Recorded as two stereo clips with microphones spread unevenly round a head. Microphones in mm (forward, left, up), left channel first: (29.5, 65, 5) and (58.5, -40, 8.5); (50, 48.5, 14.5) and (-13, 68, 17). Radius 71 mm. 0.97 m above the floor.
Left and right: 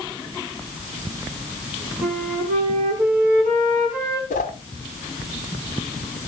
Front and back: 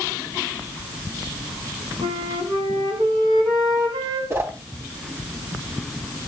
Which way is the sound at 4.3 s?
115° left.